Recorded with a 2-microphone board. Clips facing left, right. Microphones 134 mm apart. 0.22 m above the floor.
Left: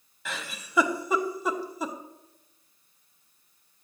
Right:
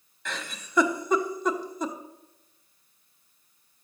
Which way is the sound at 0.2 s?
5° left (ahead or behind).